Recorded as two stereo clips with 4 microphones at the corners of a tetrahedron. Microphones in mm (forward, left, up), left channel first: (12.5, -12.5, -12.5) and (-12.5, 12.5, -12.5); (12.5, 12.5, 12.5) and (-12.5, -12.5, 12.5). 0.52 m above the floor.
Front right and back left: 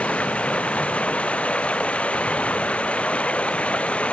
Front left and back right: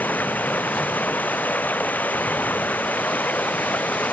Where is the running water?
10° left.